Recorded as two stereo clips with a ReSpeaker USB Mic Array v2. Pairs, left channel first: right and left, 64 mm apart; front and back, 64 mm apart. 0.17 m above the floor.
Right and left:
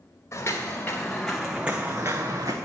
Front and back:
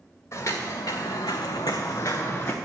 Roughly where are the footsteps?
Ahead right.